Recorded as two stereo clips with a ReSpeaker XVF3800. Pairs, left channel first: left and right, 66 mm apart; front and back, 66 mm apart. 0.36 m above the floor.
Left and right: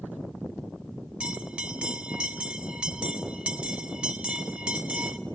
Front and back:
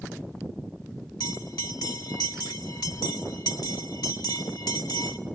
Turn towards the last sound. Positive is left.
turn(degrees=-15)